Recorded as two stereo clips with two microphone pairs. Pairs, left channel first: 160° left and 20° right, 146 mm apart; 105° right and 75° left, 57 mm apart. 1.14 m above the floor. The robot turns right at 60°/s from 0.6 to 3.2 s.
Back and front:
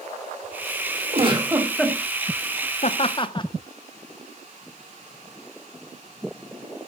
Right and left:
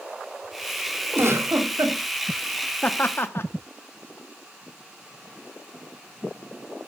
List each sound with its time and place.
1.1 s a giggle: 25° left, 2.5 m; by 2.0 s 75° left, 2.5 m
2.8 s laughter: 170° right, 0.7 m; by 3.5 s 145° right, 0.7 m